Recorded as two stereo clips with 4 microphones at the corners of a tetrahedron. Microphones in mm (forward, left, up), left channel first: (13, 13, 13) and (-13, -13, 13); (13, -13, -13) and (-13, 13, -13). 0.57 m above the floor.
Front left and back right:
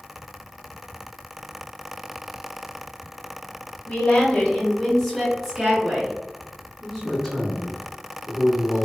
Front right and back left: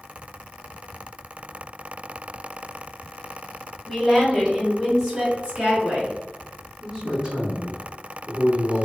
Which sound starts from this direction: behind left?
A man speaking, at 6.8 s.